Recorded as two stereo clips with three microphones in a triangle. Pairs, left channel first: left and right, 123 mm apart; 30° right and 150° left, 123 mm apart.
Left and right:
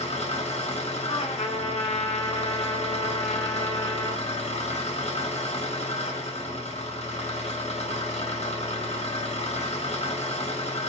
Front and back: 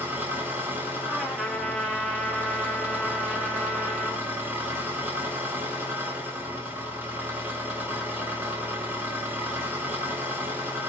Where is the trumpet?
60° left, 0.8 m.